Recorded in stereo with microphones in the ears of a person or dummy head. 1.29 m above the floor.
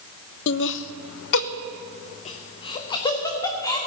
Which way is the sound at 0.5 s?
60° left (ahead or behind).